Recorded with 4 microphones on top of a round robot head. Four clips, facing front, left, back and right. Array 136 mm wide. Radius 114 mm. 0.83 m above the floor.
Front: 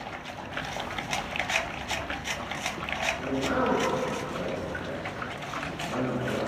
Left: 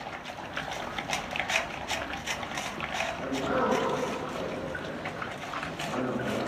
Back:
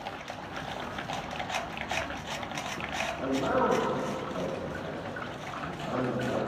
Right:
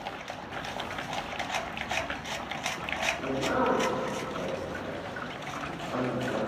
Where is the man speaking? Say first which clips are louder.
Even, back 1 dB; 155° left, 5.5 m.